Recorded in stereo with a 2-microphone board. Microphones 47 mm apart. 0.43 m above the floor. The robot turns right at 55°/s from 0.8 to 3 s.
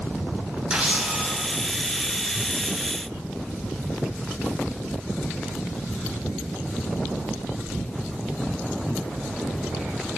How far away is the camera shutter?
About 2.5 m.